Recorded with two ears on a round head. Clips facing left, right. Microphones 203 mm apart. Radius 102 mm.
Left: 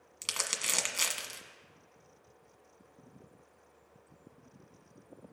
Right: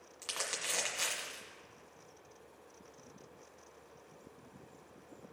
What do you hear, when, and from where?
0.2 s crumpling: 40° left (ahead or behind), 1.4 m